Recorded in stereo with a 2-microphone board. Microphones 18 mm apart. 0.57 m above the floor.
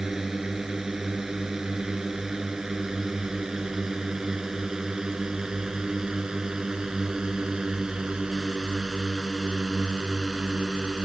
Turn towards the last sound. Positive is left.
turn(degrees=-50)  # may be behind; listen again after turning